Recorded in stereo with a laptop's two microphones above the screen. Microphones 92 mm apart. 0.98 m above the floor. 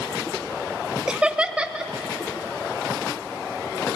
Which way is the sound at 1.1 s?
10° right (ahead or behind).